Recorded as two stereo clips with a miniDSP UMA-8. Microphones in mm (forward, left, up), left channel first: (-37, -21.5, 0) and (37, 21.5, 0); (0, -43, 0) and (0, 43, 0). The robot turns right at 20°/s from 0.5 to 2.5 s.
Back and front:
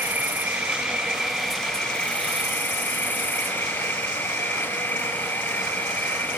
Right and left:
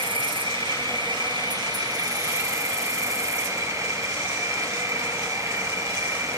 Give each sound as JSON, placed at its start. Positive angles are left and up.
{"t": 0.0, "sound": "an insect", "azimuth_deg": 100}